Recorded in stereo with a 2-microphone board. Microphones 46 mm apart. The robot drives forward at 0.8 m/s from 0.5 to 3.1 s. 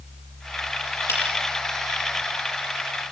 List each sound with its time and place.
1.1 s a finger snap: 65° left (ahead or behind), 9 m